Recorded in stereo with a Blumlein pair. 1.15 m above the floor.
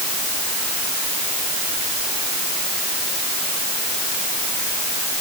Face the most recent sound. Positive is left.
No sound to turn to.